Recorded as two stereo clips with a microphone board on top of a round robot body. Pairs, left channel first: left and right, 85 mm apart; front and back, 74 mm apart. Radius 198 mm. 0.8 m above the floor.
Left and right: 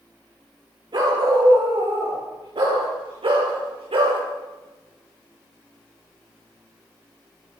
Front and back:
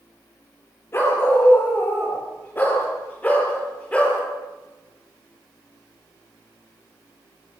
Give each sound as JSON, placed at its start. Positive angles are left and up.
{"t": 0.9, "sound": "a dog barking", "azimuth_deg": -55, "distance_m": 7.0}